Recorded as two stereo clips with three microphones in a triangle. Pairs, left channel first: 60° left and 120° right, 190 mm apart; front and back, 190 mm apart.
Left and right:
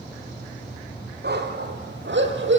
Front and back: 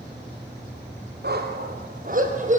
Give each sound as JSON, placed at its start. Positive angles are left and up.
{"t": 1.2, "sound": "a dog barking", "azimuth_deg": -150, "distance_m": 4.5}